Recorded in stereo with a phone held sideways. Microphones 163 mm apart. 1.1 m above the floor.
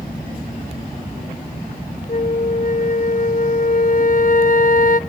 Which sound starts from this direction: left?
A flute, at 2.1 s.